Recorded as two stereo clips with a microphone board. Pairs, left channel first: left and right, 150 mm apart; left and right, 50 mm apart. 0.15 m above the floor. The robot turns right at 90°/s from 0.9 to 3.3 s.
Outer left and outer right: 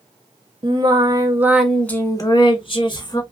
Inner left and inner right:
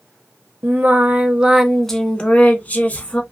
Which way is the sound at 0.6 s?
70° right.